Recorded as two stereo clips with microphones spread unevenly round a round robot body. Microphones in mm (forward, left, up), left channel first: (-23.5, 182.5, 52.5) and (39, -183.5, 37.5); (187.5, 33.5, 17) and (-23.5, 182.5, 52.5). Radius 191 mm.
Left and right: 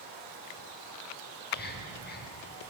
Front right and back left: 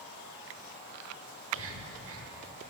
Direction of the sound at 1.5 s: 160° left.